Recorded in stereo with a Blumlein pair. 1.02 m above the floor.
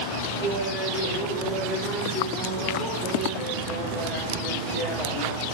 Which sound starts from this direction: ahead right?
Laughter, at 0.4 s.